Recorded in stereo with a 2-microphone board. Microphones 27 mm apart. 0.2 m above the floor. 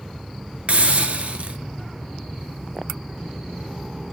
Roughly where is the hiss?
Right.